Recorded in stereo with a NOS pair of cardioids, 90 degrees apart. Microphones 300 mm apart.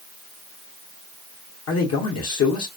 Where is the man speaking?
60° left, 0.9 m.